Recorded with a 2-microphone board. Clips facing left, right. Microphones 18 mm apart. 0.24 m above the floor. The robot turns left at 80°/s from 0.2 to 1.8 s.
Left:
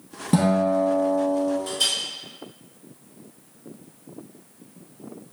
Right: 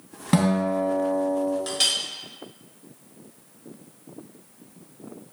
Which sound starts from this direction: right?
A clink, at 1.7 s.